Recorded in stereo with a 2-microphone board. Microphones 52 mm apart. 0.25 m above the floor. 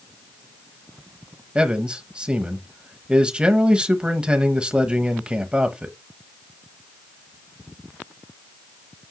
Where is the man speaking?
20° right (ahead or behind), 1.0 m.